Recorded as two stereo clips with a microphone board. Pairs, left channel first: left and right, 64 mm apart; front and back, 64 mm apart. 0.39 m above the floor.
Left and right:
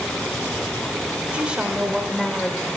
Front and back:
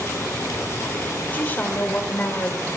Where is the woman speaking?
35° right, 1.5 m; by 2.6 s 10° left, 1.5 m.